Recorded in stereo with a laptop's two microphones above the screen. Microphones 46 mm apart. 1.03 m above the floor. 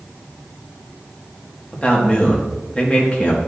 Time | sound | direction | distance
1.7 | a man speaking | 25° left (ahead or behind) | 1.7 m